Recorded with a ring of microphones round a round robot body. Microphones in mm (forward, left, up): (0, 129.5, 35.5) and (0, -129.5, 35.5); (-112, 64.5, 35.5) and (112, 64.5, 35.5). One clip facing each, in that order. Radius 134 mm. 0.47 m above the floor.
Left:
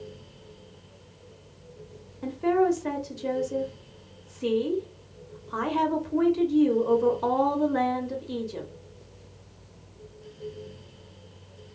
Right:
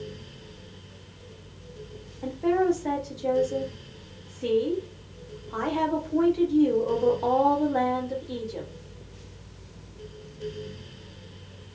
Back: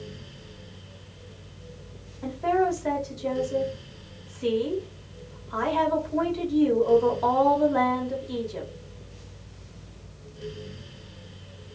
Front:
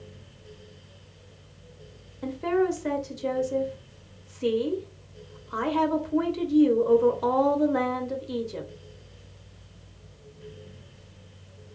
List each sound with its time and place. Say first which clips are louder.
2.2 s a woman speaking: even, front 1 dB; 35° left, 0.9 m